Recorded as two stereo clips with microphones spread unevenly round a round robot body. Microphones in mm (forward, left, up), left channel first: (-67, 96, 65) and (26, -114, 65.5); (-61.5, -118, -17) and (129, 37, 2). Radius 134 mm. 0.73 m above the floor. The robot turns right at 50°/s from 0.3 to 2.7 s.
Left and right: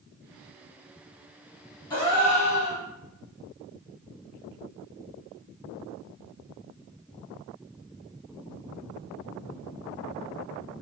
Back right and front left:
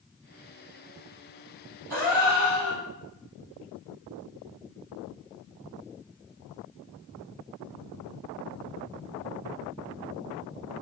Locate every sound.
1.9 s a gasp: 45° left, 1.4 m; by 2.8 s 85° left, 1.4 m